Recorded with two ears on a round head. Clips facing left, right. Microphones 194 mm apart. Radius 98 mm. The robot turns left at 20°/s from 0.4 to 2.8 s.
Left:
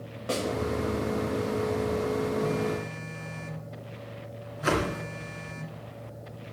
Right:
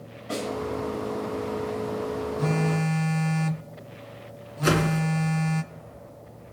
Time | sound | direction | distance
0.3 | a snare drum | 75° left (ahead or behind) | 6.5 m
2.4 | a phone buzzing | 65° right (ahead or behind) | 0.7 m
4.6 | a whoosh | 35° right (ahead or behind) | 3 m